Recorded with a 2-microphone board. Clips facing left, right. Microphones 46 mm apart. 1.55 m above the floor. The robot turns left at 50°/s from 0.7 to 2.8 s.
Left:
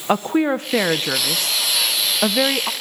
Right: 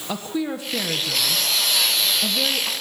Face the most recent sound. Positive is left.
turn(degrees=30)